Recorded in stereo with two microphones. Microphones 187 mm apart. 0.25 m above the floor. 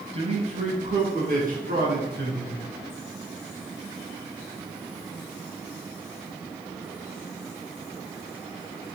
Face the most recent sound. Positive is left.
turn(degrees=-65)  # may be behind; listen again after turning